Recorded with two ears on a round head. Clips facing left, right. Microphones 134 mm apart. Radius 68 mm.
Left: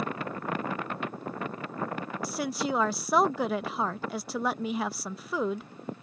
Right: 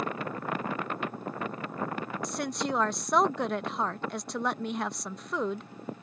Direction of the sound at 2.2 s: 5° left (ahead or behind).